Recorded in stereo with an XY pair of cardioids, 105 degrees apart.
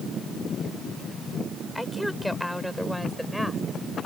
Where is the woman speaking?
5° left; by 3.6 s straight ahead.